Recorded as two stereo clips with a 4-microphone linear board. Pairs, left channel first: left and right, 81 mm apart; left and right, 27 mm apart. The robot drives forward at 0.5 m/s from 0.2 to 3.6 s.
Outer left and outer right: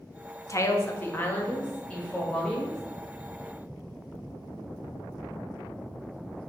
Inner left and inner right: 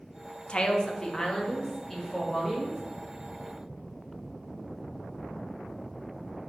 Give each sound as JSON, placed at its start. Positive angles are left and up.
{"t": 0.5, "sound": "a woman speaking", "side_deg": 40, "distance_m": 0.5}